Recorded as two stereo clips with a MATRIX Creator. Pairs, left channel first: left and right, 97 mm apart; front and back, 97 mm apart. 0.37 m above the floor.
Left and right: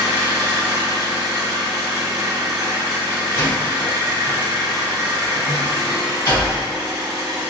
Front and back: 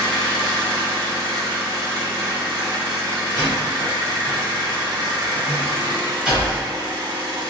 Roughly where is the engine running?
Behind right.